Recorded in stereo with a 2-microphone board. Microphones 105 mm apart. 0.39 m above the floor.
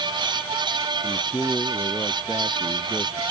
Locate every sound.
1.0 s a man speaking: 20° left (ahead or behind); by 3.2 s 25° left (ahead or behind)